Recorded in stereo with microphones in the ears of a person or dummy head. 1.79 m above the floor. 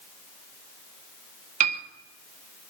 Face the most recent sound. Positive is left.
turn(degrees=-40)  # may be behind; listen again after turning